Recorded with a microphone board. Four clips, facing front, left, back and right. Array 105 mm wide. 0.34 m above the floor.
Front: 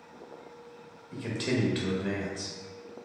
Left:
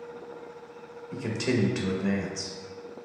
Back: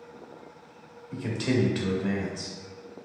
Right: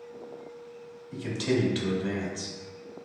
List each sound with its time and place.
1.1 s a man speaking: 100° left, 0.9 m